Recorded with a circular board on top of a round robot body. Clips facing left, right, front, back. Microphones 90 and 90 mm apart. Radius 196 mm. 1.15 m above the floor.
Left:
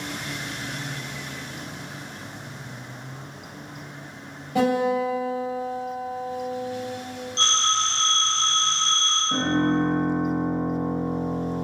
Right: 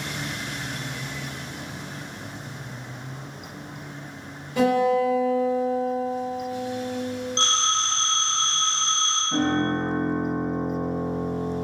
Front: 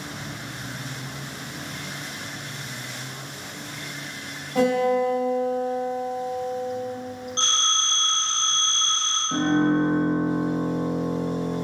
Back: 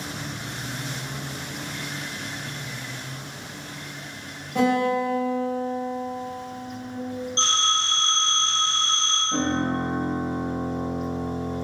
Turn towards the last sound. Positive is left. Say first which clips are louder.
# left 1 dB, front 5 dB
turn(degrees=25)